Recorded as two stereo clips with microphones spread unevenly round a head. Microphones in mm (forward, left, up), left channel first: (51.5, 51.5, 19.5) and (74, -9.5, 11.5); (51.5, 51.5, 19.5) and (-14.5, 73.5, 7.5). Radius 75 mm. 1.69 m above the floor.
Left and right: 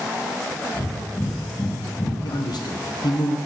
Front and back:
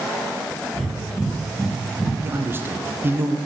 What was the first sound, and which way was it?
Breathing, 75° left.